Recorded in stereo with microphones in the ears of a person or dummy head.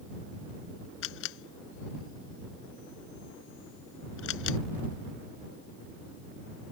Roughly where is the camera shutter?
Left.